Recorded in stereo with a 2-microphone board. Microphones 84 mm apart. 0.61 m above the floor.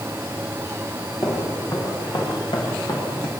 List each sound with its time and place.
1.2 s footsteps: 60° left (ahead or behind), 9 m